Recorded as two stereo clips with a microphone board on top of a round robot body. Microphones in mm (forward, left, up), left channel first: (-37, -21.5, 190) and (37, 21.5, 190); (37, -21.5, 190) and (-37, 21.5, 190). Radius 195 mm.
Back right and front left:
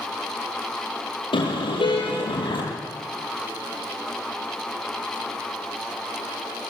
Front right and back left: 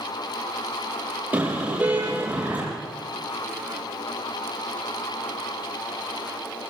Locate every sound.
1.3 s a car horn: 140° right, 7.5 m